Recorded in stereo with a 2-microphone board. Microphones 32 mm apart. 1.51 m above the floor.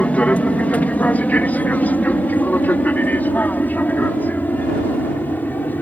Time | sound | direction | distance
0.0 | an aircraft | 45° left (ahead or behind) | ?